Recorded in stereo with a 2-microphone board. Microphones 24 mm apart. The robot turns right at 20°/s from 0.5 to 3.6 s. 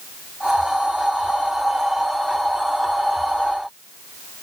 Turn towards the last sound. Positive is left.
No sound to turn to.